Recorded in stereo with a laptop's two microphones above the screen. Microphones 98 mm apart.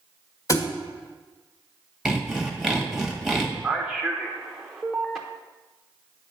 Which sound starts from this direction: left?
A thud, at 0.5 s.